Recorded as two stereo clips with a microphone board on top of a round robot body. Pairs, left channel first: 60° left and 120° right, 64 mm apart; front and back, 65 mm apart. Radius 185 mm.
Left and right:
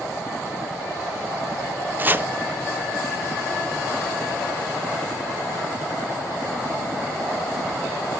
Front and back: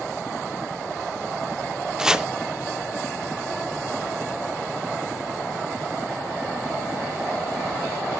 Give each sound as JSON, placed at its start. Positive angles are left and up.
{"t": 2.0, "sound": "chopping", "azimuth_deg": -110, "distance_m": 0.9}